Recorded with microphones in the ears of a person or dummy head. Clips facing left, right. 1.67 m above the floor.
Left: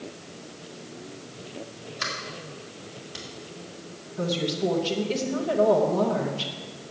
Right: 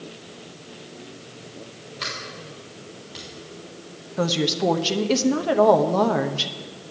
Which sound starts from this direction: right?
A woman speaking, at 4.2 s.